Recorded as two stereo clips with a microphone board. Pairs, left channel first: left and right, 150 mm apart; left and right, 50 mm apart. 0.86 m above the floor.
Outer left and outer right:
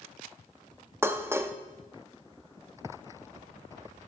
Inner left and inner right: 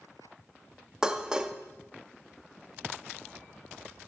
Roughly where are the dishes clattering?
Centre.